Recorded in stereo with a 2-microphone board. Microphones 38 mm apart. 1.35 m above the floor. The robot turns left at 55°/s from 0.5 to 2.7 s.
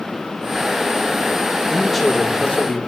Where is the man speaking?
165° right, 1.7 m; by 2.8 s 140° left, 1.7 m.